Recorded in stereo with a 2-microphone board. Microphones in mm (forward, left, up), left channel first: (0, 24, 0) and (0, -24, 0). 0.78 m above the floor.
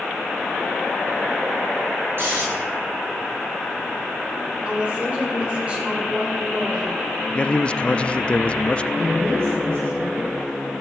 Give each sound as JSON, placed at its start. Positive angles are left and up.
{"t": 2.2, "sound": "snoring", "side_deg": -50, "distance_m": 8.5}
{"t": 4.7, "sound": "a woman speaking", "side_deg": -30, "distance_m": 2.5}
{"t": 7.3, "sound": "a man speaking", "side_deg": 25, "distance_m": 0.5}
{"t": 8.9, "sound": "a woman speaking", "side_deg": -60, "distance_m": 3.0}